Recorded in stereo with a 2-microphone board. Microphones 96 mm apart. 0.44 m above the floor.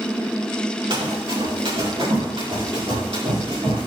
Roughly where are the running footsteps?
Right.